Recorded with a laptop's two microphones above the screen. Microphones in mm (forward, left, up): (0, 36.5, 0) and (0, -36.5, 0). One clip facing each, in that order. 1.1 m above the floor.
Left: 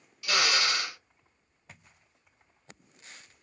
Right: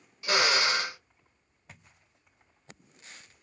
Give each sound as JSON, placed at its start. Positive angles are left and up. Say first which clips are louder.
{"t": 0.2, "sound": "a drill", "louder": "right 2 dB", "side_deg": -30, "distance_m": 0.6}